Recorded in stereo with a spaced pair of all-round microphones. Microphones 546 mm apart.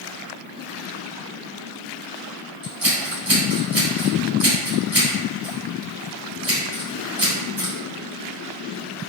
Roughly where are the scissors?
Right.